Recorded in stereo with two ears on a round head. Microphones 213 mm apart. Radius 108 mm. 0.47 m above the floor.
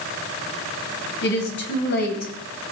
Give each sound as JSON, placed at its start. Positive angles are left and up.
{"t": 1.2, "sound": "a woman speaking", "side_deg": 50, "distance_m": 3.5}